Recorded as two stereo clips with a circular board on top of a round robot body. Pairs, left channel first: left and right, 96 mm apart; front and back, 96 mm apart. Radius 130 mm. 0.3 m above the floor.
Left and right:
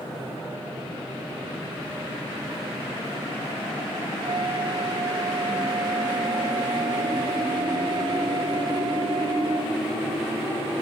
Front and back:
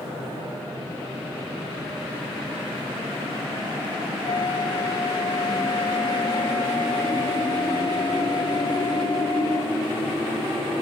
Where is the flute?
45° right.